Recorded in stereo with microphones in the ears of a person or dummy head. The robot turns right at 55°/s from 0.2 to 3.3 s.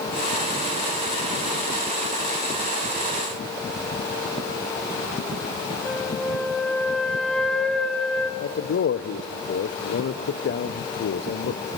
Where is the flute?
5° left (ahead or behind), 1.1 m.